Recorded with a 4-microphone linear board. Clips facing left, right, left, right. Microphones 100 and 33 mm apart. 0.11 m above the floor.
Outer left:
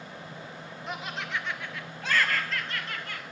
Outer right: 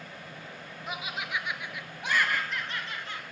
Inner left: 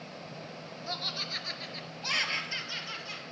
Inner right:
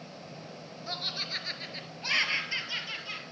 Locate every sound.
0.9 s laughter: 5° right (ahead or behind), 1.2 m; by 3.2 s 20° right (ahead or behind), 2 m